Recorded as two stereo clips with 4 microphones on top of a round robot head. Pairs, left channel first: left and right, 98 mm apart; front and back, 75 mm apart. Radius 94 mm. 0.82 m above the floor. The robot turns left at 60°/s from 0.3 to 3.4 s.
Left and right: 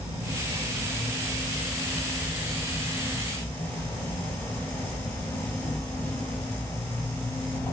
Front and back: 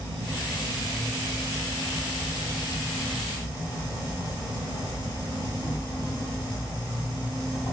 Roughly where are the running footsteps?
I don't hear running footsteps.